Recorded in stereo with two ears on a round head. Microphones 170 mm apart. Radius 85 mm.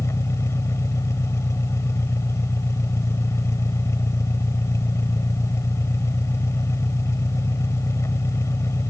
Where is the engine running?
15° left (ahead or behind).